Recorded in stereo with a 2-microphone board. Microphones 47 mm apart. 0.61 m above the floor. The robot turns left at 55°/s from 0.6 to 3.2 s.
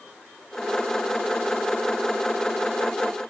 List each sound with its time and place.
Only background noise.